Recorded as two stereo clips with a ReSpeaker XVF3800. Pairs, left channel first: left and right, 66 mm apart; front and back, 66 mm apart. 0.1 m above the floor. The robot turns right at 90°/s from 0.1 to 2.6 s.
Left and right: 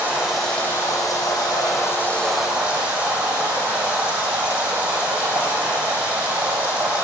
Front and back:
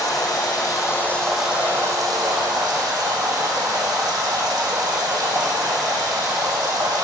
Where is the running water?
25° right, 4.5 m; by 7.0 s 160° right, 4.5 m.